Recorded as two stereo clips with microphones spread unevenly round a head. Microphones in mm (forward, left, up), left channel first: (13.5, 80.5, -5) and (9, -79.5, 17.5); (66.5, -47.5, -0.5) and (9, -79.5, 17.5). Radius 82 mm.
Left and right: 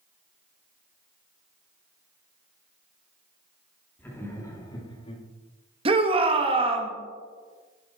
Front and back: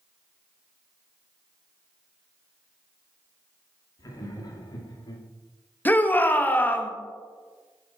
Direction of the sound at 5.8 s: 35° right.